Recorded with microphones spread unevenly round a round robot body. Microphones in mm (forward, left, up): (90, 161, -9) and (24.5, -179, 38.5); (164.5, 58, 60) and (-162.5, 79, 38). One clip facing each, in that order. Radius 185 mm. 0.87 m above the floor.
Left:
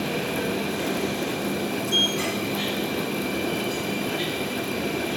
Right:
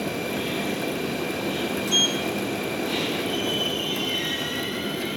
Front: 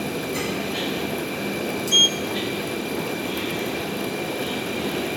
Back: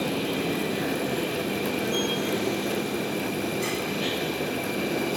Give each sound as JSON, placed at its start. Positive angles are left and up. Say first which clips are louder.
{"t": 1.9, "sound": "a sliding door", "louder": "even, back 1 dB", "azimuth_deg": -15, "distance_m": 0.5}